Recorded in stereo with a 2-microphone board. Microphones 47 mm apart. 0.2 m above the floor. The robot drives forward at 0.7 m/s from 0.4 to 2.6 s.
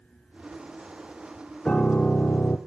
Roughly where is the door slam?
I don't hear a door slam.